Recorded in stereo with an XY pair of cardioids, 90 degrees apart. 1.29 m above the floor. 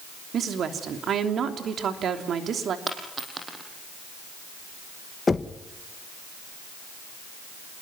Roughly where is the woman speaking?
Ahead right.